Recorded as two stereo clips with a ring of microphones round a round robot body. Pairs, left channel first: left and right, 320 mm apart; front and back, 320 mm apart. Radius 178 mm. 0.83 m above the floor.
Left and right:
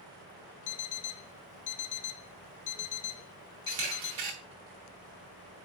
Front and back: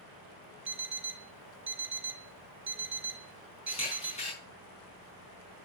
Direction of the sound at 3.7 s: 70° right.